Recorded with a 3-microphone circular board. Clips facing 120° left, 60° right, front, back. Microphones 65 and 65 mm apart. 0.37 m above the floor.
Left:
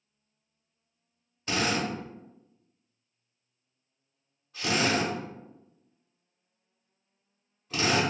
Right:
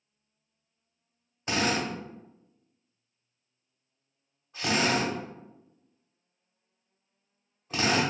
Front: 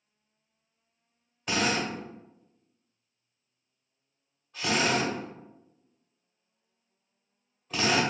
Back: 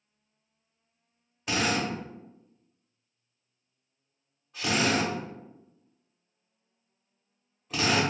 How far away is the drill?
About 1.2 m.